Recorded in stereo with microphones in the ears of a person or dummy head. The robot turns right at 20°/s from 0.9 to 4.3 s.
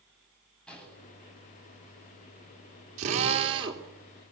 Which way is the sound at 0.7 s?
5° left (ahead or behind).